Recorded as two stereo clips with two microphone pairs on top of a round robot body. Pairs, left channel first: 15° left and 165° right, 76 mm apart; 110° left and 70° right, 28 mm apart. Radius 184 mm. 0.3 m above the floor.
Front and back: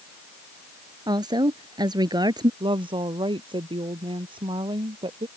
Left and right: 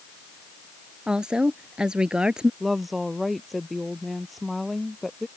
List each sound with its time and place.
1.1 s a woman speaking: 130° right
2.6 s a woman speaking: 160° right